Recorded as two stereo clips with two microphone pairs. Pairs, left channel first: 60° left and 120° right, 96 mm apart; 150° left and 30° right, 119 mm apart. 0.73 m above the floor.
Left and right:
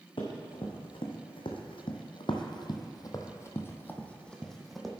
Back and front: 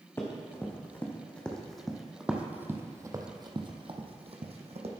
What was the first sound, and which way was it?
Running footsteps, 80° left.